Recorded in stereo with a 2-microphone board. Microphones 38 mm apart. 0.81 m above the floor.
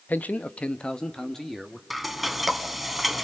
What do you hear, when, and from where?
0.1 s a man speaking: 45° left (ahead or behind), 0.7 m; by 1.8 s 5° left (ahead or behind), 1.3 m
1.9 s frying: centre (ahead or behind), 1.0 m